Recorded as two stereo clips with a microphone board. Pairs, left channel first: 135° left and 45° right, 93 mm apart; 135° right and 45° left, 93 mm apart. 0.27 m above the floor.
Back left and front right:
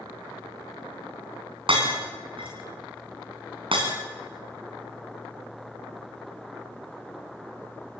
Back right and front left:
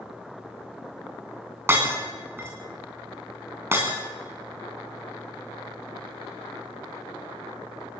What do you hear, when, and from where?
1.7 s breaking glass: 20° right, 5.5 m